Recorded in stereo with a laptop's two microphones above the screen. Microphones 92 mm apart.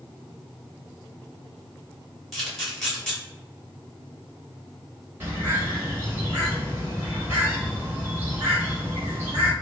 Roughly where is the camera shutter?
Centre.